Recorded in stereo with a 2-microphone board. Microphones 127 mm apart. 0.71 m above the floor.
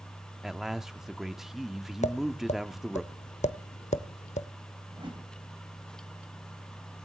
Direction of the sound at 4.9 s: 40° right (ahead or behind).